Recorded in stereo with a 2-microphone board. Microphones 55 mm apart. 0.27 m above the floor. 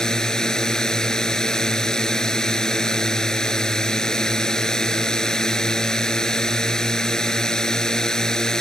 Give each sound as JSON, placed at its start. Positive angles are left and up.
{"t": 0.0, "sound": "a drone", "side_deg": 10}